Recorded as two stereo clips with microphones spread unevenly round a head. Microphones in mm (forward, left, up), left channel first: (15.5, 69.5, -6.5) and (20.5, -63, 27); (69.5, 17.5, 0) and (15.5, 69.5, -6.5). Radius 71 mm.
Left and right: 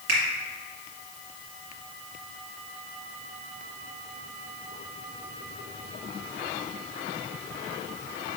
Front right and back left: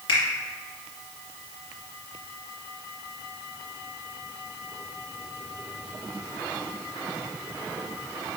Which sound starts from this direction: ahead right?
A finger snap, at 0.1 s.